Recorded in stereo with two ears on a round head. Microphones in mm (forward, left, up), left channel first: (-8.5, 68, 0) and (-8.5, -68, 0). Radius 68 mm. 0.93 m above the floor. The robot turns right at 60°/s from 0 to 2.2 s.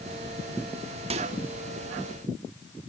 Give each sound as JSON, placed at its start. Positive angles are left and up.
{"t": 1.1, "sound": "a microwave", "side_deg": -40, "distance_m": 1.6}